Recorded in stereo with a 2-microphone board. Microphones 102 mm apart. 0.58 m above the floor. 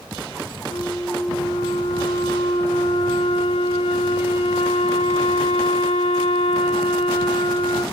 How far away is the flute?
About 5.5 m.